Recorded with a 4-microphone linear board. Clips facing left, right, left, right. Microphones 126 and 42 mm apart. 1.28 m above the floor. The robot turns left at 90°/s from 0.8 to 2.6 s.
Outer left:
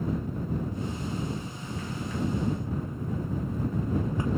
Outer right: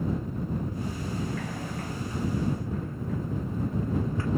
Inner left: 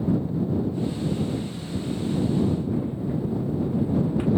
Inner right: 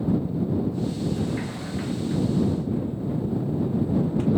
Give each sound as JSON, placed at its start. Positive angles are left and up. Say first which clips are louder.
{"t": 1.2, "sound": "a sliding door", "louder": "outer right 2 dB, even", "side_deg": -70}